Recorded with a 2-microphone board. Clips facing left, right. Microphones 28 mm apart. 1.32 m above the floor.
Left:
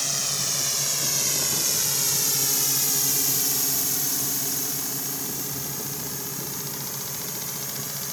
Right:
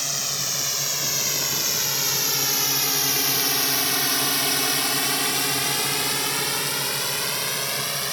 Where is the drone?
10° right (ahead or behind); by 8.1 s 60° right (ahead or behind).